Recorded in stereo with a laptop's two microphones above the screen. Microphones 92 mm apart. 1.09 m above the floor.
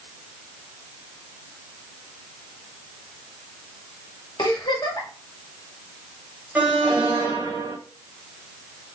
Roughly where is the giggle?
Left.